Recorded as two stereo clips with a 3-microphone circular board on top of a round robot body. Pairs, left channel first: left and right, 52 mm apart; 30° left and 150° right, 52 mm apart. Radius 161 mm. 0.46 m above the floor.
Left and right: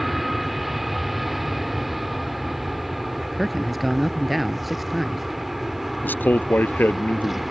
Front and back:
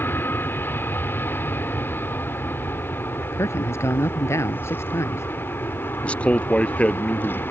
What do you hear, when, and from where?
0.0 s an aircraft: straight ahead
3.3 s a man speaking: straight ahead
6.0 s a man speaking: 80° left